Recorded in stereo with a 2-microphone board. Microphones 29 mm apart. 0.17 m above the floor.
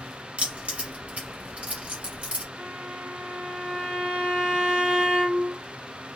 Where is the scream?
I don't hear a scream.